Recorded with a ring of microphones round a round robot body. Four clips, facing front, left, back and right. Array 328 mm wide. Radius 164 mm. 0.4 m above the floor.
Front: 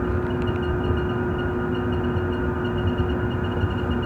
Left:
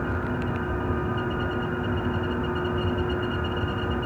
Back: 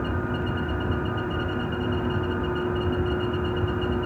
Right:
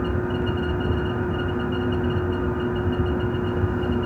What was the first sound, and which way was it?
Only background noise.